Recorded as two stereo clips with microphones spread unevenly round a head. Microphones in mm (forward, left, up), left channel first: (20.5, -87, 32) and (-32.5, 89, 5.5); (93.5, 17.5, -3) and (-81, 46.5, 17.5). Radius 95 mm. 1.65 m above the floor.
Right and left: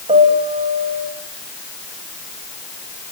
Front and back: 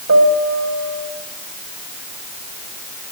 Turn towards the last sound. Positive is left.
turn(degrees=170)